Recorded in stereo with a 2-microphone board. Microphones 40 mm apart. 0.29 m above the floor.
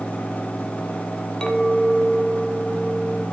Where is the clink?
15° left (ahead or behind), 1.9 m.